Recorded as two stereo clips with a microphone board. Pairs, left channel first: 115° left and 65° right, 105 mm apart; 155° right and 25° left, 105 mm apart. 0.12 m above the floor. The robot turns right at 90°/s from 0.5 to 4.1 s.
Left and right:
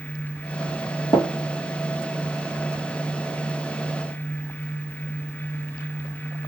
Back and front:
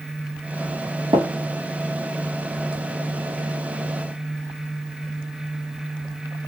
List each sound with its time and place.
1.1 s tapping: 65° left, 1.2 m; by 1.2 s 75° left, 1.2 m